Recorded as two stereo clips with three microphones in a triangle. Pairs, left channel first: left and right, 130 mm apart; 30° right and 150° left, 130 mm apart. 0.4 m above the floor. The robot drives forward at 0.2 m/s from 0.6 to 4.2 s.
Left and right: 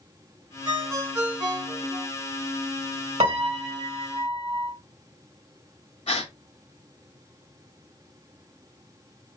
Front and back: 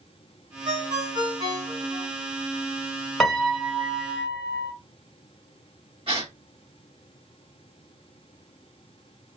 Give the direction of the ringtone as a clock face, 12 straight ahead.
5 o'clock.